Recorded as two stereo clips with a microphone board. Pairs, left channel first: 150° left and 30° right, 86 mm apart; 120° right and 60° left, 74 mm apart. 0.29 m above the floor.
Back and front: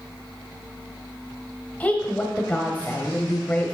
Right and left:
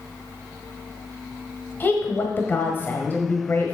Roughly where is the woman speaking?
Behind right.